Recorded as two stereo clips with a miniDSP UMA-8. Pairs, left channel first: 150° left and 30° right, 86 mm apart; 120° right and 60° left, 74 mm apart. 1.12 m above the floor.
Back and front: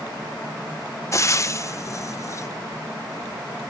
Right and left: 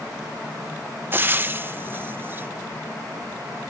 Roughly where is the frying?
Left.